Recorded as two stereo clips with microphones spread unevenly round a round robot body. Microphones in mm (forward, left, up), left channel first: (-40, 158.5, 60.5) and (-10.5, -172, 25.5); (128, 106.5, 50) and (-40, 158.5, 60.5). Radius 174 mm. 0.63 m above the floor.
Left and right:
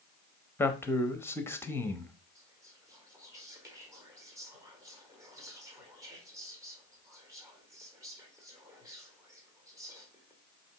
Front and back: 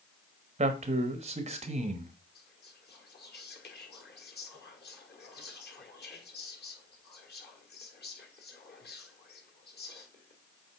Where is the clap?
No clap in this recording.